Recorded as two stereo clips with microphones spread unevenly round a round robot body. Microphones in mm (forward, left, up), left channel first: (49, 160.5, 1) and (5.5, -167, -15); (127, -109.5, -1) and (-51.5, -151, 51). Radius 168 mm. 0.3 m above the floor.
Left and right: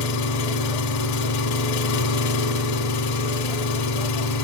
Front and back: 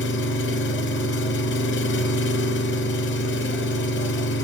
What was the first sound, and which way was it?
An engine running, 40° left.